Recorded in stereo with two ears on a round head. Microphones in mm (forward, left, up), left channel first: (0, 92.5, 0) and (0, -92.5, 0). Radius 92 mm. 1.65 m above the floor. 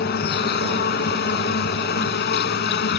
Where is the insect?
50° left (ahead or behind).